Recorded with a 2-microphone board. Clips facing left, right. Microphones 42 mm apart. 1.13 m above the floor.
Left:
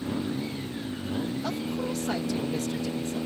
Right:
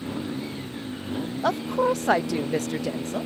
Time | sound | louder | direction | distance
1.4 | a woman speaking | right 8 dB | 70° right (ahead or behind) | ?